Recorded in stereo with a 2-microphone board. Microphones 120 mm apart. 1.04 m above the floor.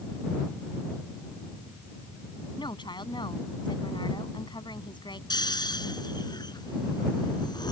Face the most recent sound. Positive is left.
turn(degrees=35)  # may be behind; listen again after turning